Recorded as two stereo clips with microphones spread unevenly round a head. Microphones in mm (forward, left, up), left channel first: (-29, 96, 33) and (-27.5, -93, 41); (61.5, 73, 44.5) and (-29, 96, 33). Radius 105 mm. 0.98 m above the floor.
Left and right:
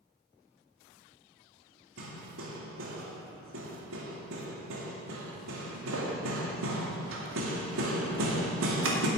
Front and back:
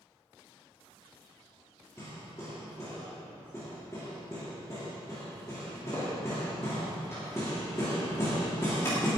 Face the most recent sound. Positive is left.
turn(degrees=-85)